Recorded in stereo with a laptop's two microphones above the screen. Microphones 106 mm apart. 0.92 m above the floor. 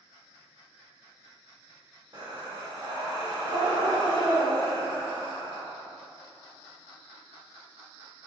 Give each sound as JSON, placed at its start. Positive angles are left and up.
{"t": 2.1, "sound": "breathing", "side_deg": -40, "distance_m": 1.1}